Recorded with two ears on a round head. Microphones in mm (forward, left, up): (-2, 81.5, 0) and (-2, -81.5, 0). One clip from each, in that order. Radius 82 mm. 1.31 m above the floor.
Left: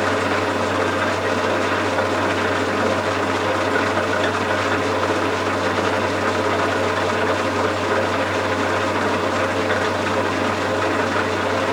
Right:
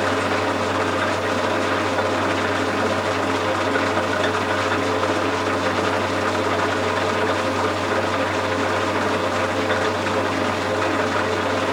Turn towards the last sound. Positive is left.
turn(degrees=-5)  # may be behind; listen again after turning